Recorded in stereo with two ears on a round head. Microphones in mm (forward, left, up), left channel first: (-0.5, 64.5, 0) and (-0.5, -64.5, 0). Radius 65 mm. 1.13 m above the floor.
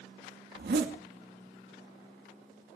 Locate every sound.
0.6 s a zipper: 75° right (ahead or behind), 2.5 m